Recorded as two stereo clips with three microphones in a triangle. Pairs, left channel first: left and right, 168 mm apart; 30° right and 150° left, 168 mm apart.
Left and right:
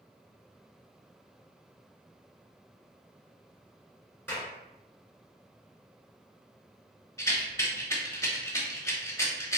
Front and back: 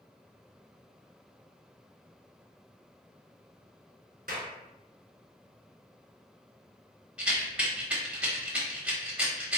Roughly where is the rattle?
Left.